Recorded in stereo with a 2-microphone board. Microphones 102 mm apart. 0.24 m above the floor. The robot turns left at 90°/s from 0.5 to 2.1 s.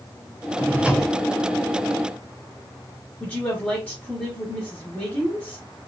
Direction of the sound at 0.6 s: 140° right.